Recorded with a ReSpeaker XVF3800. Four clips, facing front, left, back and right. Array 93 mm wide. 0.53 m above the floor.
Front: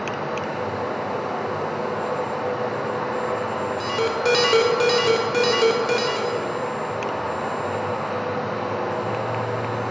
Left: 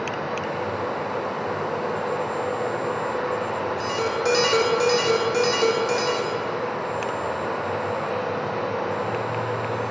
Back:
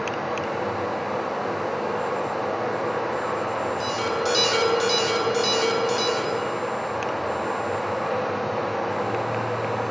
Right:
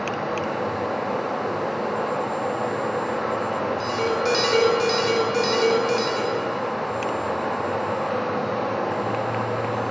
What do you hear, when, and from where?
0.0 s running water: 60° right, 2.5 m
3.8 s an alarm: 5° left, 1.0 m